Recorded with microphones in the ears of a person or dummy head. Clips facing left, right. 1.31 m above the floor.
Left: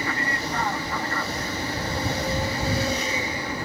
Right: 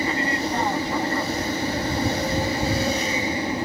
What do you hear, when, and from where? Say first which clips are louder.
0.0 s an aircraft: right 5 dB; 15° right (ahead or behind)